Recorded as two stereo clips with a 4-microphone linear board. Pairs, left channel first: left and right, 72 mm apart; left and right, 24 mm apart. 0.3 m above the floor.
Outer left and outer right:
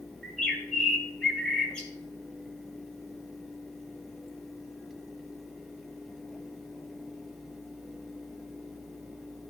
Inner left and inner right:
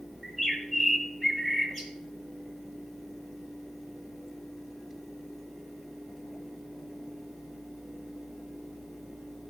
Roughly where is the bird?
Centre.